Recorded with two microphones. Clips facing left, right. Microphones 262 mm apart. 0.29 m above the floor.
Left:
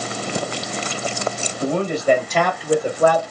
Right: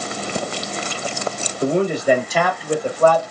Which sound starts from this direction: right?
A man speaking, at 1.6 s.